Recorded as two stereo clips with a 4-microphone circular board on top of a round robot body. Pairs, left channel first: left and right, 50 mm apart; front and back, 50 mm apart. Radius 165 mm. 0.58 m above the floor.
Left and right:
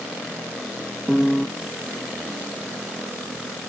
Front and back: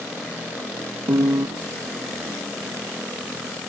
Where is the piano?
Straight behind.